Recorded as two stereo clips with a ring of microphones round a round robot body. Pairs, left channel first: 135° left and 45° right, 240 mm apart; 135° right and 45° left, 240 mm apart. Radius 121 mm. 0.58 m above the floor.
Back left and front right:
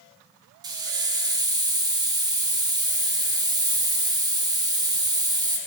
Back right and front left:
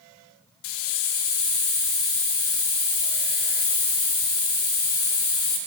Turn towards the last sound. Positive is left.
turn(degrees=-120)